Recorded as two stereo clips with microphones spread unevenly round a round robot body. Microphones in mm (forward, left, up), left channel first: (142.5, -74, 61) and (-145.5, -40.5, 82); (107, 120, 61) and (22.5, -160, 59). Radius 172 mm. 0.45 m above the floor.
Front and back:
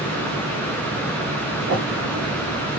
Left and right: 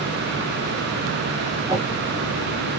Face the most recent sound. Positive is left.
turn(degrees=165)